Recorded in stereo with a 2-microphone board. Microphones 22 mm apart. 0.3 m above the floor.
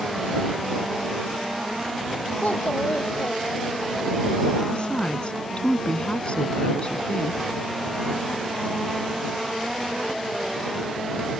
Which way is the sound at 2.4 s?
85° left.